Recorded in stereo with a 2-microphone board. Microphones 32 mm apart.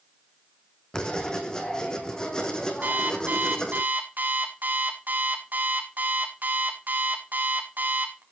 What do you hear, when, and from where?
0.9 s writing: 25° left (ahead or behind), 3.5 m
2.8 s an alarm clock: 65° right (ahead or behind), 3.5 m